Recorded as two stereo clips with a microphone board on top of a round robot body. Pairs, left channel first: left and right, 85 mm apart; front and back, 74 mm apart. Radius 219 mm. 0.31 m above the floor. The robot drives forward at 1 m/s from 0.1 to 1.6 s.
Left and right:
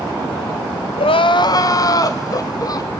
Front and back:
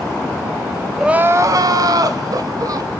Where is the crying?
90° left, 0.6 m; by 2.9 s 140° left, 0.8 m.